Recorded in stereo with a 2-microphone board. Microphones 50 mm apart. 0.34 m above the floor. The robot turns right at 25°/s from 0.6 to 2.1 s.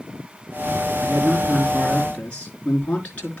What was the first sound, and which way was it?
A man speaking, centre (ahead or behind).